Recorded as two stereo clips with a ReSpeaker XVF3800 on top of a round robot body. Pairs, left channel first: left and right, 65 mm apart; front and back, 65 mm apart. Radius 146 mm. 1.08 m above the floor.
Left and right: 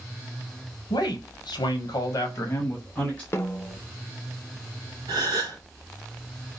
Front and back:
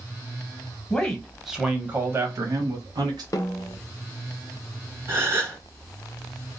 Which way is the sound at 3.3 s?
35° left.